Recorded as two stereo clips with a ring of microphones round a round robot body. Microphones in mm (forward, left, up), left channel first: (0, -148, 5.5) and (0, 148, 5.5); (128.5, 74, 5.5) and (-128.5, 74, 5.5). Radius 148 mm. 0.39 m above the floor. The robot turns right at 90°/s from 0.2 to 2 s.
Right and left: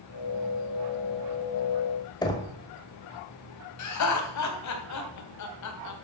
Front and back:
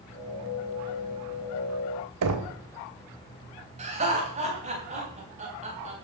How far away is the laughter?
About 3 m.